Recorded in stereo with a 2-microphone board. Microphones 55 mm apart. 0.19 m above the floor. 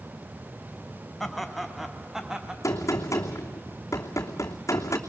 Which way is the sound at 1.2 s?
5° left (ahead or behind).